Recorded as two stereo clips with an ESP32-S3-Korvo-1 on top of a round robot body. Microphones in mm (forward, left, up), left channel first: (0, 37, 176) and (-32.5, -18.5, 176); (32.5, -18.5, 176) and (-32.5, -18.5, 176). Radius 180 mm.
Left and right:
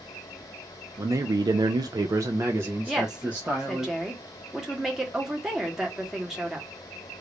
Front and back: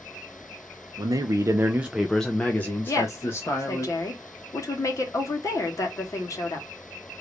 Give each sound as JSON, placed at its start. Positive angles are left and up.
{"t": 1.0, "sound": "a man speaking", "azimuth_deg": -160, "distance_m": 0.6}
{"t": 2.9, "sound": "a woman speaking", "azimuth_deg": -35, "distance_m": 1.5}